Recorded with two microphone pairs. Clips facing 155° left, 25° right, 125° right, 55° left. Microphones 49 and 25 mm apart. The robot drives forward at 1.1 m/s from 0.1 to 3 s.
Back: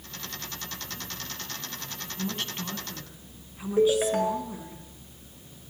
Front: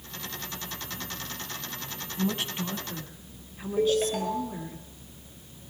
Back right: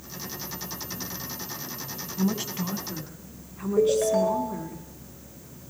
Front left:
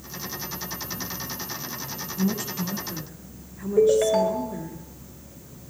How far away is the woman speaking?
About 1.4 m.